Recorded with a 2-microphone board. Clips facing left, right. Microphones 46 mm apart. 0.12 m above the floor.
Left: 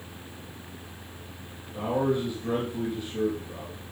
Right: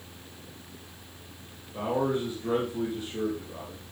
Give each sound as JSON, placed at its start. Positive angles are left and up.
{"t": 1.7, "sound": "a man speaking", "side_deg": -15, "distance_m": 5.0}